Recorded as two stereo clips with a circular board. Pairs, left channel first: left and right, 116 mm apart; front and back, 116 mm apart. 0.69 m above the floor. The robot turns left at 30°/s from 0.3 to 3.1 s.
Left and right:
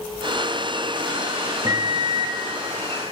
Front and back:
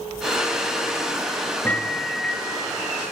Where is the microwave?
60° right, 0.7 m; by 2.4 s 85° right, 0.7 m.